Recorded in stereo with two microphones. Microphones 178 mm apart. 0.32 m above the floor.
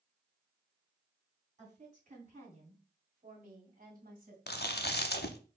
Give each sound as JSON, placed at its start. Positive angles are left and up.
{"t": 1.6, "sound": "a woman speaking", "side_deg": -40, "distance_m": 3.0}
{"t": 4.5, "sound": "chewing", "side_deg": 70, "distance_m": 0.6}